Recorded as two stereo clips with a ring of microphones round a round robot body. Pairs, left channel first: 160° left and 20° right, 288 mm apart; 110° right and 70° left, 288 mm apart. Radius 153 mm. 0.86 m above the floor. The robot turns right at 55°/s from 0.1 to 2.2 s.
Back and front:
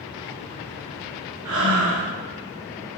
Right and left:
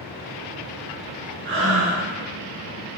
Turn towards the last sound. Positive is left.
turn(degrees=55)